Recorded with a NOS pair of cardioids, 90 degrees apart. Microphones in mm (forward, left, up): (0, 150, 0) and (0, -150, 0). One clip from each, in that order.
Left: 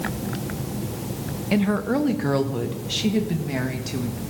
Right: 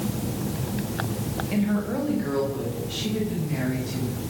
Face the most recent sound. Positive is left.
turn(degrees=70)